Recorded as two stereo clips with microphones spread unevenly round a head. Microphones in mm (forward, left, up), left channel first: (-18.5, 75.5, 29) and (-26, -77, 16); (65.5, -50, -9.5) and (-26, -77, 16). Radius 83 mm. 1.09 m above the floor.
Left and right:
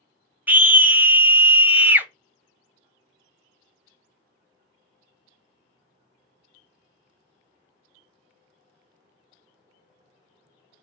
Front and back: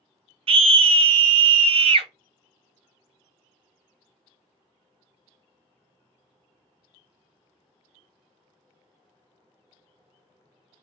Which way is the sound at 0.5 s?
160° right.